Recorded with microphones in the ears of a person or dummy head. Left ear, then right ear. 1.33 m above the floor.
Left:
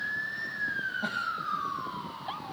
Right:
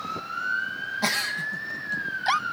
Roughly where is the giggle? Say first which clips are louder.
Right 5 dB; right.